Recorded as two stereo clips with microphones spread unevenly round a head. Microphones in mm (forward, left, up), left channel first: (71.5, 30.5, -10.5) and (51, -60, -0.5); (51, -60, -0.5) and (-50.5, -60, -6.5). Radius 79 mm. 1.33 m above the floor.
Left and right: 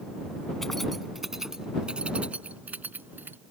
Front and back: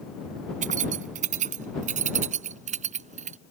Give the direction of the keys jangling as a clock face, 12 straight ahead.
6 o'clock.